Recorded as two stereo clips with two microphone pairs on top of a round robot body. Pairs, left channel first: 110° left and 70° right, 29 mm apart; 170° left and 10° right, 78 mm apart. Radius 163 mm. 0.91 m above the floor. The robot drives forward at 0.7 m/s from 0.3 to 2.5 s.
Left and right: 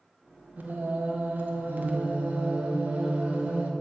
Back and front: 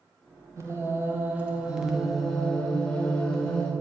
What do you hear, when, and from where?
0.6 s singing: 65° right, 1.8 m; by 3.7 s 110° right, 1.7 m